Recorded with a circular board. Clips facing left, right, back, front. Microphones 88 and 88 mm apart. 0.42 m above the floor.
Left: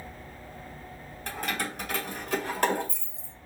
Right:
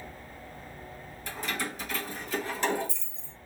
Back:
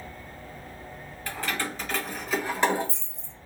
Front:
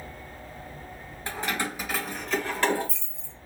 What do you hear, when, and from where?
1.3 s keys jangling: 60° left, 1.2 m; by 3.3 s 140° left, 1.2 m